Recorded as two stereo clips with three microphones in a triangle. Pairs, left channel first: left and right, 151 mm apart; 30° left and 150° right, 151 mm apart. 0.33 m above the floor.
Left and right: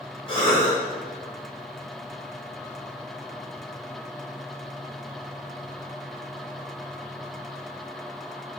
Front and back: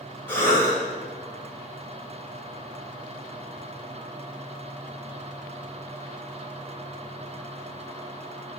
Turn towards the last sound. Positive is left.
turn(degrees=95)